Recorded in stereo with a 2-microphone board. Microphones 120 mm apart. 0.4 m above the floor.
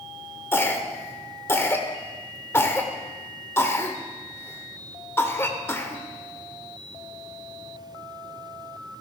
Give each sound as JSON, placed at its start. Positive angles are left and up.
{"t": 0.5, "sound": "a cough", "side_deg": 20, "distance_m": 1.1}